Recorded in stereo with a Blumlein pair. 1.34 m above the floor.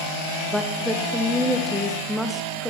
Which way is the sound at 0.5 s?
Straight ahead.